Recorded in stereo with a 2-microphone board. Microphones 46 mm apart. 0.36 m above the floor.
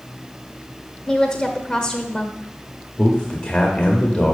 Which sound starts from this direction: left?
A man speaking, at 3.0 s.